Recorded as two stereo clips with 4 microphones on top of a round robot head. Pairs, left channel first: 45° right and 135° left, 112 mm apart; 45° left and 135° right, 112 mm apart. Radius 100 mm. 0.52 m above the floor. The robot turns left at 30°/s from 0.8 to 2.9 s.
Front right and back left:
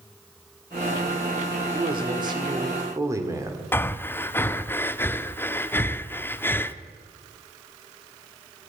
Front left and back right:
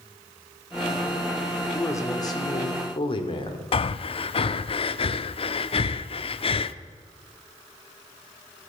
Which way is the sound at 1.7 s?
110° left.